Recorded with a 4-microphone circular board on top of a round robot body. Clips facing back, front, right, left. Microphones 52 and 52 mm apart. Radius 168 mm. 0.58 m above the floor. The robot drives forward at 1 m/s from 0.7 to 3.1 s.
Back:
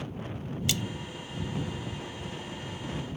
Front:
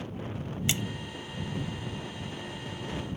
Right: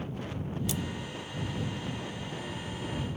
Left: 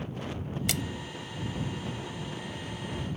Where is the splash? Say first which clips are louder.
Even, left 3 dB; 65° left.